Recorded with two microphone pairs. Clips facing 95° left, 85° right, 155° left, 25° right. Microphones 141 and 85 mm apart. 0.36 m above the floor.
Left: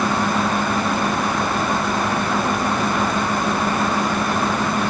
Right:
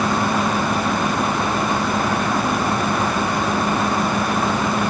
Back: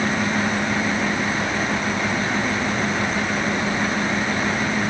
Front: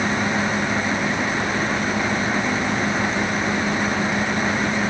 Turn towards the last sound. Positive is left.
No sound to turn to.